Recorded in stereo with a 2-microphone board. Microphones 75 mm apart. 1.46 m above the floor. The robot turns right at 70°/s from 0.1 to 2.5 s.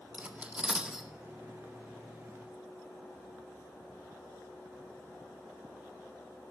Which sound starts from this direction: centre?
Cutlery clinking, at 0.1 s.